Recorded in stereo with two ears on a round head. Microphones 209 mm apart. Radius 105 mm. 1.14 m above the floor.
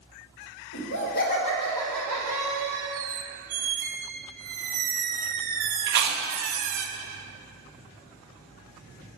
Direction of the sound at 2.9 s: 35° right (ahead or behind).